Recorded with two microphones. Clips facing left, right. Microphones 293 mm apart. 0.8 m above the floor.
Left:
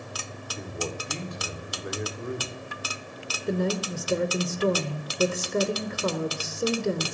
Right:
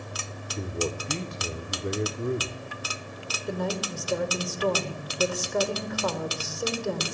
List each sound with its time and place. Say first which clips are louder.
0.6 s a man speaking: right 4 dB; 35° right (ahead or behind), 1.8 m
3.5 s a woman speaking: left 4 dB; 30° left (ahead or behind), 2.5 m